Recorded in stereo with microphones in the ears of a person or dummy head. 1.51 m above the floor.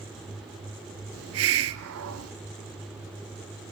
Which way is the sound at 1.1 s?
65° right (ahead or behind).